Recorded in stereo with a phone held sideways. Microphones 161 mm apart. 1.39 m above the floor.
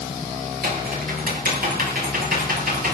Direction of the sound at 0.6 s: 65° right (ahead or behind).